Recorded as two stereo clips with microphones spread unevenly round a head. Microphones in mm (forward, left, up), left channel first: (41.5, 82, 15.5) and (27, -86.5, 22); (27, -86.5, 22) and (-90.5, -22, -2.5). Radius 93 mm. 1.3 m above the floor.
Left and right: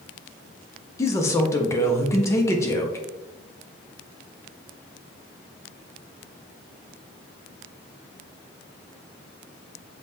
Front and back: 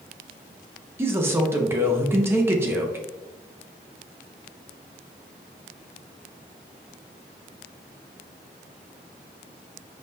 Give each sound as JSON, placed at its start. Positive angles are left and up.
{"t": 1.0, "sound": "a man speaking", "azimuth_deg": 135, "distance_m": 0.5}